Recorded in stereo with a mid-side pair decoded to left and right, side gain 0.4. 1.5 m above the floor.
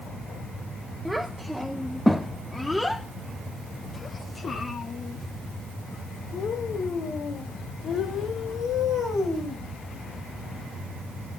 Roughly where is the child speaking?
Ahead.